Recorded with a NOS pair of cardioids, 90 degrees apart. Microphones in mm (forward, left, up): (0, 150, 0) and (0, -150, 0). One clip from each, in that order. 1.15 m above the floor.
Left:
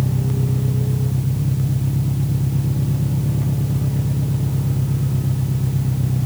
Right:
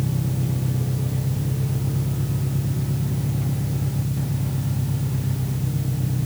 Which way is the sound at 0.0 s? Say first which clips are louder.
Left 4 dB; 35° left.